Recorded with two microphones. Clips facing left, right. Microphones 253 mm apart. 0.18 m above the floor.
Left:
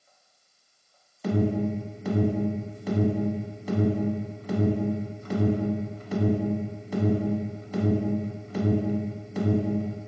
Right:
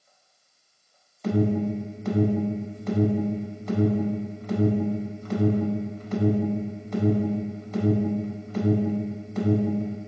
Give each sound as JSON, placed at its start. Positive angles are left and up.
{"t": 1.2, "sound": "an alarm", "side_deg": 5, "distance_m": 1.0}